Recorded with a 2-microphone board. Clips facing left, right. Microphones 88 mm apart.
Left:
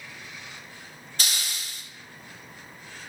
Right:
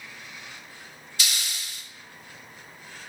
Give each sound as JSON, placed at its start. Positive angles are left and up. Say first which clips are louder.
{"t": 1.2, "sound": "a hiss", "louder": "even", "side_deg": 40, "distance_m": 1.7}